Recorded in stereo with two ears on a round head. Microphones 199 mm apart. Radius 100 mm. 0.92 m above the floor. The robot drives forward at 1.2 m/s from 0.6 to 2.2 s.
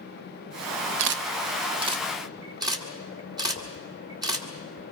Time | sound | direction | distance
1.0 | a camera shutter | 60° right (ahead or behind) | 0.7 m